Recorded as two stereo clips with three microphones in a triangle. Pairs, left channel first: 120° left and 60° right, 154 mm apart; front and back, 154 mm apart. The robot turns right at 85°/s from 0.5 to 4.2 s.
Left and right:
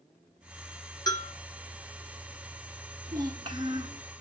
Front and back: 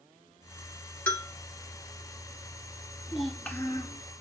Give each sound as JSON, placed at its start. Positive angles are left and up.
{"t": 1.1, "sound": "a bell", "azimuth_deg": 70, "distance_m": 1.9}
{"t": 3.1, "sound": "a child speaking", "azimuth_deg": -105, "distance_m": 1.3}